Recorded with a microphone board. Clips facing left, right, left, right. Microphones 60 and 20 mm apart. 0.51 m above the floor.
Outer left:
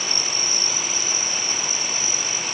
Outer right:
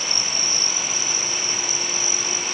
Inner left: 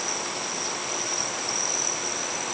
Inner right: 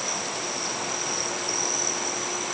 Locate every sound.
Only background noise.